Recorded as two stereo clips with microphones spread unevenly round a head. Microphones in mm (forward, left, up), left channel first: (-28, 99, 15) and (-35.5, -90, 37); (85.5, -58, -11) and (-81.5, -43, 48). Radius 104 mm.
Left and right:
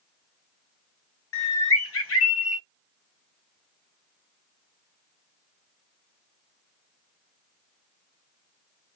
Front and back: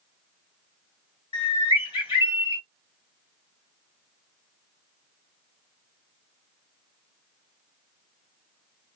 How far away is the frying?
I don't hear frying.